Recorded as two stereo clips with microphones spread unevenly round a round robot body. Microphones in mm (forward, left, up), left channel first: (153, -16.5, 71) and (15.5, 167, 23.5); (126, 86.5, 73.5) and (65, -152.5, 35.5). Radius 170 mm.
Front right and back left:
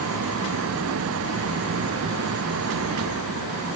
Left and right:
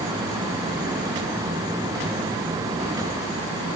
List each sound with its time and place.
Only background noise.